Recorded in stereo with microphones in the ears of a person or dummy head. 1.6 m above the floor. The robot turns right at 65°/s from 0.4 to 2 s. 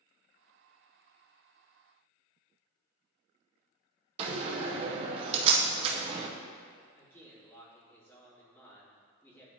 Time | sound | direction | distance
4.2 | a door slam | 30° right (ahead or behind) | 0.8 m
7.0 | a man speaking | 15° left (ahead or behind) | 2 m